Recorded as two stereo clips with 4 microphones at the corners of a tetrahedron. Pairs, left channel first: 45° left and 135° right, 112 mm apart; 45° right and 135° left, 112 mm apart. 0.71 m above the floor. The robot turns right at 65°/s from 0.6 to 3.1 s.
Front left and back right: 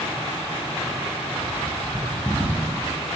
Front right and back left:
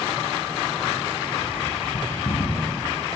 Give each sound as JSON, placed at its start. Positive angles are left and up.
{"t": 1.3, "sound": "a bird", "azimuth_deg": -85, "distance_m": 2.0}